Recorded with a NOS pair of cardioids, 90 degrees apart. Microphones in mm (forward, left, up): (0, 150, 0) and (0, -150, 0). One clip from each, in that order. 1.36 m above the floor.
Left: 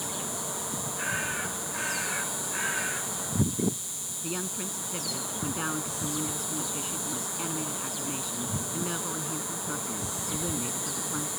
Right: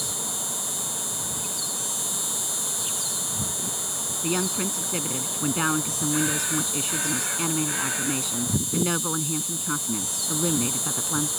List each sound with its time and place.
0.0 s an insect: 50° right
4.2 s a woman speaking: 60° right